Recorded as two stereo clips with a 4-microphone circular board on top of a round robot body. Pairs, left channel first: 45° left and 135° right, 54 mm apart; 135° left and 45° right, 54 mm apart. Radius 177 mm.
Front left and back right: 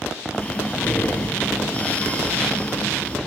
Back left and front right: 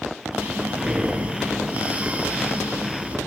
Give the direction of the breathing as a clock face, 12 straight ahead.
12 o'clock.